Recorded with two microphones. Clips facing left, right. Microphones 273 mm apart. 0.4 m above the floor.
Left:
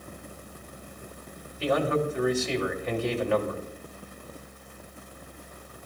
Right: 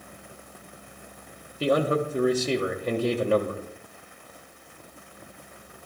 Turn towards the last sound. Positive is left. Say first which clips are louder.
# right 2 dB
turn(degrees=-40)  # may be behind; listen again after turning